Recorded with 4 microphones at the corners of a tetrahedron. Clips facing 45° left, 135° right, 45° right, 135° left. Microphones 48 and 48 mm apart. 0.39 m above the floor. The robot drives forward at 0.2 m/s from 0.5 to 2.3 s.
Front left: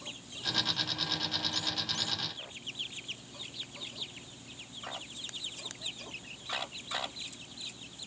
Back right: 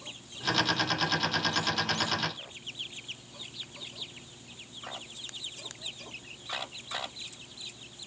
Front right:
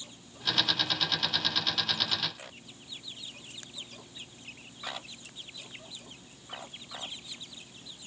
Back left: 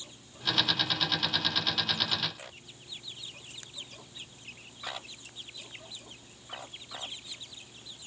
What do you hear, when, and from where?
Only background noise.